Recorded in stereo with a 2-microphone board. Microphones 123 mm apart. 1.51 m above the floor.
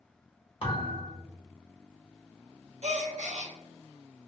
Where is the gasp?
60° right (ahead or behind), 0.8 m.